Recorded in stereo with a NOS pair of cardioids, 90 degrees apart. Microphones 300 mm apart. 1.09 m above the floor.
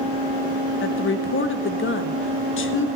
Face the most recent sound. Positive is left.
turn(degrees=45)